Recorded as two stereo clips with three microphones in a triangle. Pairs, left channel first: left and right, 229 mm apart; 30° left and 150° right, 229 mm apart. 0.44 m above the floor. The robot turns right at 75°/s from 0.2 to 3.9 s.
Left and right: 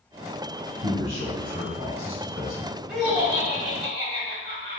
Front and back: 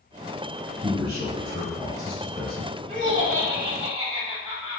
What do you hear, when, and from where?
0.8 s a man speaking: 135° right, 2.5 m; by 2.7 s 10° left, 2.5 m
2.9 s laughter: straight behind, 1.5 m; by 4.8 s 105° right, 1.5 m